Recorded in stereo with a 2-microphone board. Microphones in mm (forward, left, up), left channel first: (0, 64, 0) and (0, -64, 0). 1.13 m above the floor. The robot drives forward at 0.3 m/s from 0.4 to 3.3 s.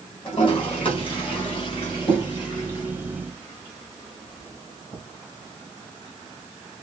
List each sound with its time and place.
0.2 s a toilet flushing: 45° left (ahead or behind), 3 m; by 5.0 s 35° left (ahead or behind), 3.5 m